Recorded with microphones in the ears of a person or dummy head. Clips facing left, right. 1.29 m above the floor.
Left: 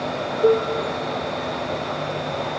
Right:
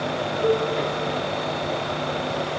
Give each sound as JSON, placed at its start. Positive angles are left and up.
{"t": 0.4, "sound": "a cowbell", "side_deg": 35, "distance_m": 2.5}